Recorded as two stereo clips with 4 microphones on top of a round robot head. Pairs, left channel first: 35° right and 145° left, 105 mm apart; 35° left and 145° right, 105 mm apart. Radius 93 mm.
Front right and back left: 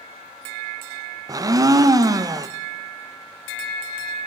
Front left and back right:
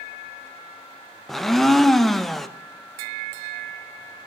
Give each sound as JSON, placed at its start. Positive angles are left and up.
{"t": 1.3, "sound": "a blender", "azimuth_deg": 120, "distance_m": 0.8}